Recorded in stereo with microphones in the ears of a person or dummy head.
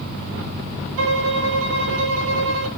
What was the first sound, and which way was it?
A violin, 70° right (ahead or behind).